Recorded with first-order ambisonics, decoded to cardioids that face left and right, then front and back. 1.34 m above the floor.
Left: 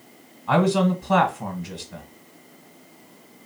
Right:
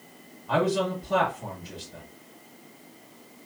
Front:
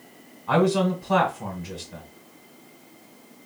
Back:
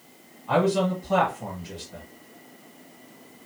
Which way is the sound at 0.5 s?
60° left.